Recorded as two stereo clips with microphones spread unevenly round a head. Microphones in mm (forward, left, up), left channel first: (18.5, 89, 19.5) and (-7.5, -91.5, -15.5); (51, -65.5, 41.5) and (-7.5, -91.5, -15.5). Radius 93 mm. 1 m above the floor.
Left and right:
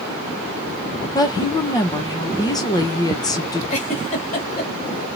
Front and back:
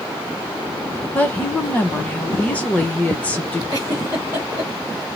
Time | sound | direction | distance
1.1 | a woman speaking | 155° left | 0.7 m
3.7 | a giggle | 135° left | 1.2 m